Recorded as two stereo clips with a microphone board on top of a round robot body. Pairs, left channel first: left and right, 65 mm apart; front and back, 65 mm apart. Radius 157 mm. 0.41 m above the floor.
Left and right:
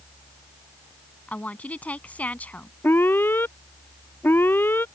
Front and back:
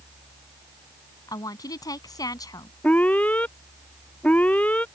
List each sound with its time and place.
1.3 s a woman speaking: 20° left
2.8 s an alarm: 55° left